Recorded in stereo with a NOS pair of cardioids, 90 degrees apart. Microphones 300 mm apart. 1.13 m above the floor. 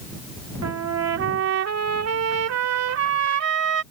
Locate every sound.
0.6 s a trumpet: 60° right